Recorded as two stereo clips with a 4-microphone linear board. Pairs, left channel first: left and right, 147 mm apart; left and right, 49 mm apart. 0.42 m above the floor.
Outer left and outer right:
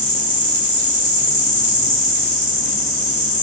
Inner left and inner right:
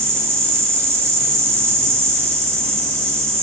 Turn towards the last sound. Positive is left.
turn(degrees=-80)